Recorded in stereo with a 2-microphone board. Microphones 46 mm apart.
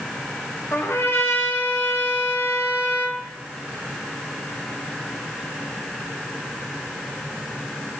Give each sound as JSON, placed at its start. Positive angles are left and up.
{"t": 0.7, "sound": "a trumpet", "side_deg": 75, "distance_m": 0.8}